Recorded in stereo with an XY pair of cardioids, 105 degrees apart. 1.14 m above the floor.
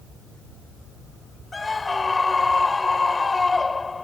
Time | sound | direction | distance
1.5 | a scream | 20° left | ?